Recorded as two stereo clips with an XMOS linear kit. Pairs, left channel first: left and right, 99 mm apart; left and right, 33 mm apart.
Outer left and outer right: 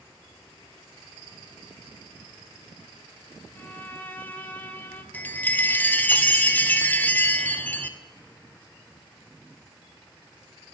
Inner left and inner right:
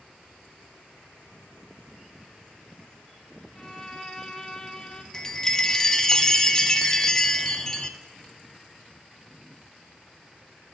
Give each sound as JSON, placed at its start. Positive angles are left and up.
{"t": 3.5, "sound": "a violin", "side_deg": 15, "distance_m": 0.7}
{"t": 5.1, "sound": "a chime", "side_deg": 15, "distance_m": 0.6}